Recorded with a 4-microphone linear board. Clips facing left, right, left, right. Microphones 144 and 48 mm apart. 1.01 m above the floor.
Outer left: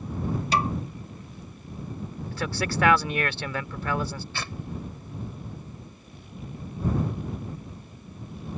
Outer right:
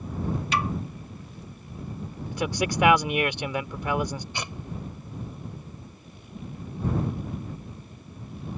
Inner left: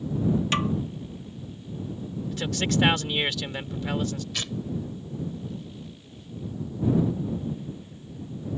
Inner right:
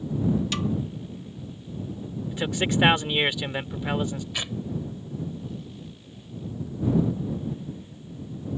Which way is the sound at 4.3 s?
15° right (ahead or behind).